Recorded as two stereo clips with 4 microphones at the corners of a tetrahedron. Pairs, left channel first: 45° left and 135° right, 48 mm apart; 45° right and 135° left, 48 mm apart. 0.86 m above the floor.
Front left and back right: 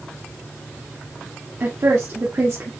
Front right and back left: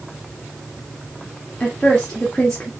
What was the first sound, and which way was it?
A woman speaking, 115° right.